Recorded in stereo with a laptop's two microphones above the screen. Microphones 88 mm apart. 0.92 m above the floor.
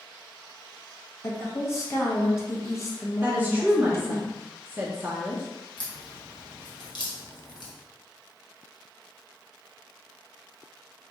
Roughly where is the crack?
Left.